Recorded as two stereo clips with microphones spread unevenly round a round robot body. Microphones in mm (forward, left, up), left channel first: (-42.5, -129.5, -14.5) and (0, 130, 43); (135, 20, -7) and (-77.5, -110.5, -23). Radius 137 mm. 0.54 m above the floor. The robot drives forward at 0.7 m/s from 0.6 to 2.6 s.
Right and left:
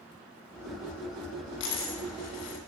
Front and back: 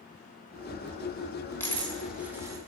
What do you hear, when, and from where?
1.6 s a dropped coin: 50° right, 1.7 m; by 2.6 s 70° right, 1.3 m